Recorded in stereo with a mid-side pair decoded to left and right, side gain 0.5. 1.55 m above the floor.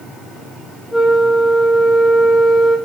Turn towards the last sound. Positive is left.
turn(degrees=20)